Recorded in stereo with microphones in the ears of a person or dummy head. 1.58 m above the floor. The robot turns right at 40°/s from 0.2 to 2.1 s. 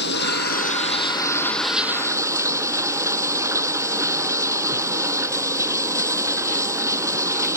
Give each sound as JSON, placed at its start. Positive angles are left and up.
{"t": 0.0, "sound": "running water", "azimuth_deg": 120}